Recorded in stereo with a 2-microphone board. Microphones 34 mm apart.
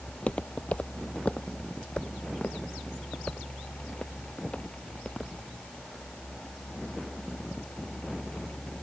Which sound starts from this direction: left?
Footsteps, at 0.1 s.